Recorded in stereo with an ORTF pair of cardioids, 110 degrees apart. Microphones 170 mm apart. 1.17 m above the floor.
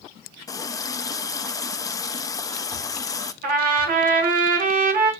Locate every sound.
0.5 s a running tap: 20° left, 0.8 m
3.4 s a trumpet: 60° right, 3 m